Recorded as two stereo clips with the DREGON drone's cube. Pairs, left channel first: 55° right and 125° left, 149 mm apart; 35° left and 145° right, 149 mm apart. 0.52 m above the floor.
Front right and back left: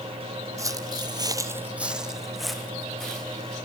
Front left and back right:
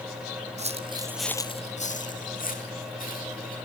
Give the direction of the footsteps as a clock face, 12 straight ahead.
6 o'clock.